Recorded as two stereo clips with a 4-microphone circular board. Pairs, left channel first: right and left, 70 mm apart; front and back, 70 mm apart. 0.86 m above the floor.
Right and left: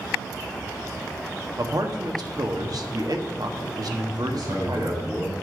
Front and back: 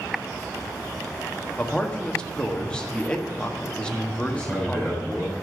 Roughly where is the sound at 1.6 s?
Left.